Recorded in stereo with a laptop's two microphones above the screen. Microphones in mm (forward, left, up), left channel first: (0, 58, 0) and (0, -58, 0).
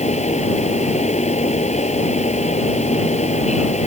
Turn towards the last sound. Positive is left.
turn(degrees=75)  # may be behind; listen again after turning